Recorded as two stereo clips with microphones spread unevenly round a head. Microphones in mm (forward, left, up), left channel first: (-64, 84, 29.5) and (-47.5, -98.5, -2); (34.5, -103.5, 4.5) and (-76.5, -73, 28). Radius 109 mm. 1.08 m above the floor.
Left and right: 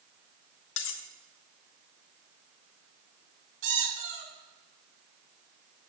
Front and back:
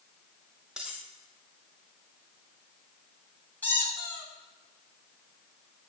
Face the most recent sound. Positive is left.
turn(degrees=-90)